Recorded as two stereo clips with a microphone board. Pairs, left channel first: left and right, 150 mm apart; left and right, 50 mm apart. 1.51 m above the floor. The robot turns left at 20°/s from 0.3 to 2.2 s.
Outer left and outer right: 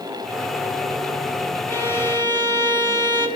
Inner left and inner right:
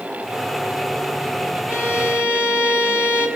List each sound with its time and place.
1.7 s a violin: 30° right (ahead or behind), 1.5 m; by 3.3 s 25° right (ahead or behind), 1.5 m